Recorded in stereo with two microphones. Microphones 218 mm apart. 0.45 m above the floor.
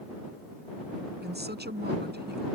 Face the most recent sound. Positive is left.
turn(degrees=-50)  # may be behind; listen again after turning